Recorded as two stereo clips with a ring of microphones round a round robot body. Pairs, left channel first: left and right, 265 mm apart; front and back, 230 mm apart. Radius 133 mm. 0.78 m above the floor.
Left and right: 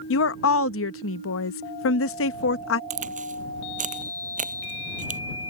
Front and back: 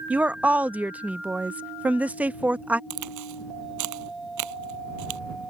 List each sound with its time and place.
0.1 s a woman speaking: 100° left
2.9 s a crack: 155° right